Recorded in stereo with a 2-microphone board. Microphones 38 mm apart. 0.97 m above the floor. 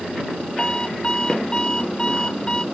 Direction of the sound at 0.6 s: 20° left (ahead or behind).